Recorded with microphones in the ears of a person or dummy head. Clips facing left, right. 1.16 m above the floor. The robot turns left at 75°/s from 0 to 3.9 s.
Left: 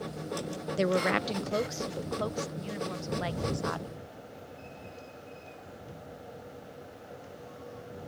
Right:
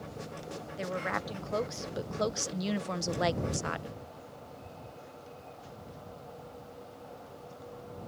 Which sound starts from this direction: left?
A woman speaking, at 0.8 s.